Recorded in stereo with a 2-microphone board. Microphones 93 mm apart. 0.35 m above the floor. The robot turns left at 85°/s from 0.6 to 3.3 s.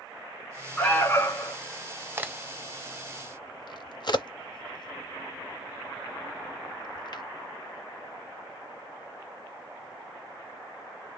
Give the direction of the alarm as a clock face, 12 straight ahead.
6 o'clock.